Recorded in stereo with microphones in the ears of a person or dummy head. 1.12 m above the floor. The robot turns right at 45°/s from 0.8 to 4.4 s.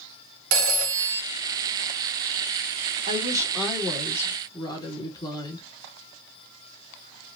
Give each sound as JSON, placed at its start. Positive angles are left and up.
{"t": 0.5, "sound": "a phone ringing", "side_deg": -90, "distance_m": 0.7}
{"t": 3.1, "sound": "a woman speaking", "azimuth_deg": -35, "distance_m": 1.3}